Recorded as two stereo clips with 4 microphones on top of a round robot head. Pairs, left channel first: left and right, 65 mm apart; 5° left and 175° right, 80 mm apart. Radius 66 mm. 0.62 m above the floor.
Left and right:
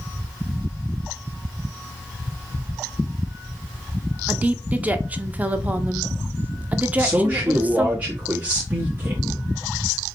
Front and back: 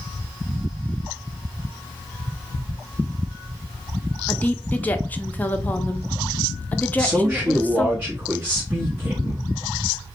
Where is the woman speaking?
45° right, 0.6 m.